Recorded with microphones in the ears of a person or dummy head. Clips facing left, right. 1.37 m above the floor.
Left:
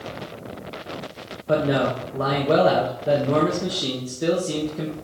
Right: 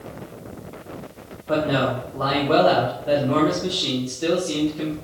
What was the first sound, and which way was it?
A man speaking, 40° left (ahead or behind).